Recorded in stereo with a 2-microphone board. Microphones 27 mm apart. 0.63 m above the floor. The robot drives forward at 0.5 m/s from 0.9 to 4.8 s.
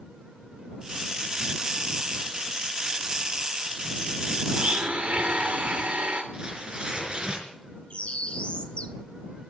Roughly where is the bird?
Left.